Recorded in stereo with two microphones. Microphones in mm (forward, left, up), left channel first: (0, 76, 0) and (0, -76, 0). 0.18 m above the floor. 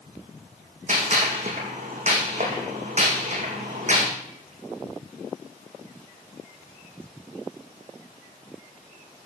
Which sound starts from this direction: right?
A gunshot, at 0.9 s.